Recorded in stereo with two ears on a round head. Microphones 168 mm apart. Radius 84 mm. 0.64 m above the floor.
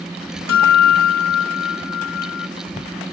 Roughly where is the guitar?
Left.